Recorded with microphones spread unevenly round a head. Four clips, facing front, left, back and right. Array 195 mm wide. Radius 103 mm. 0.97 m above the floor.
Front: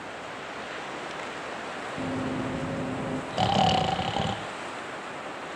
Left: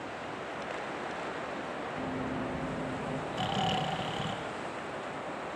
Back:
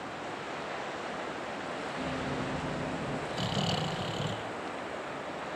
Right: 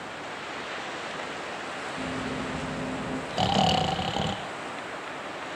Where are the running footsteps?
5° right, 3.5 m; by 3.2 s 15° right, 4 m.